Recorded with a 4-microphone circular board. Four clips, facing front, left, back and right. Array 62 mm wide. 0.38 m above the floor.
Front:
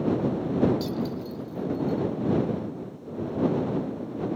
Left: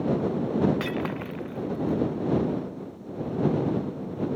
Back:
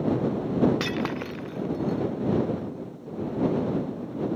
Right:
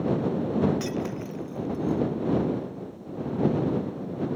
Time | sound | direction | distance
0.8 | breaking glass | 150° left | ?